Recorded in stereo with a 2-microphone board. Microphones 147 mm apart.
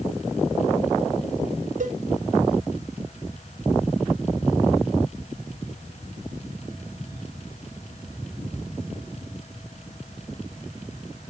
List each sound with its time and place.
1.8 s a cowbell: 60° right (ahead or behind), 0.6 m